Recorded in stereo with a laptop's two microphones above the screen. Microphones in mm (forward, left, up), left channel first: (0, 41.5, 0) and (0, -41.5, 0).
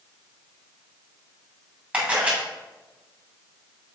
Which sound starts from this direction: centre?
A camera shutter, at 1.9 s.